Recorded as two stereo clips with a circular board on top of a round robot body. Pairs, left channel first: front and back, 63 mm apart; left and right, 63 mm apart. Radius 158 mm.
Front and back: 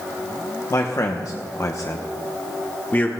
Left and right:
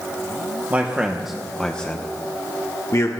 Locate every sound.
0.7 s a man speaking: 30° right, 1.1 m; by 3.1 s 60° left, 1.5 m